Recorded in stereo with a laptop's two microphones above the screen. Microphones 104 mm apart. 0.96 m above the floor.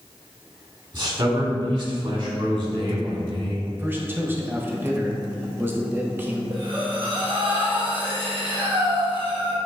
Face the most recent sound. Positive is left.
turn(degrees=-55)  # may be behind; listen again after turning